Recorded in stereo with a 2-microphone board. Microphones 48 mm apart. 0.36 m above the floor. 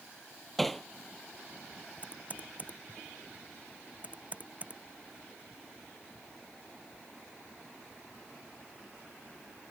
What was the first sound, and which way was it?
Hammering, 5° left (ahead or behind).